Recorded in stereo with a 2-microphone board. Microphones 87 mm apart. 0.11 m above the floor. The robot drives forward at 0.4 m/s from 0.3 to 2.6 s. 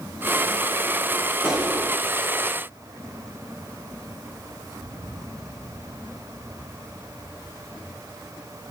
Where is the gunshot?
5° right (ahead or behind), 5 m.